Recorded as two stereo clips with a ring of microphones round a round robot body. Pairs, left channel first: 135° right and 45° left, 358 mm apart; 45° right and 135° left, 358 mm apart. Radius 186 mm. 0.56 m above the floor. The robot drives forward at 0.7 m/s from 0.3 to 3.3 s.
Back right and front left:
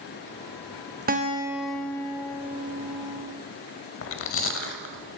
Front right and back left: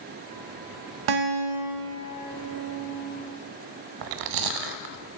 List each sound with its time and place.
1.1 s a guitar: 110° left, 0.8 m; by 3.4 s 160° left, 2.0 m
4.0 s chewing: 170° left, 0.8 m